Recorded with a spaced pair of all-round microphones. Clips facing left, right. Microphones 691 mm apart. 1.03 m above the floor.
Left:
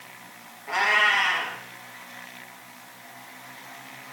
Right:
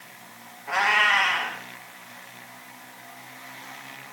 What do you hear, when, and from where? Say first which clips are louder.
0.7 s a cat meowing: even; 40° right (ahead or behind), 2 m